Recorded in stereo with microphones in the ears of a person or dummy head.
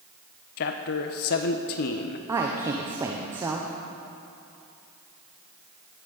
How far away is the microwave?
No microwave in this recording.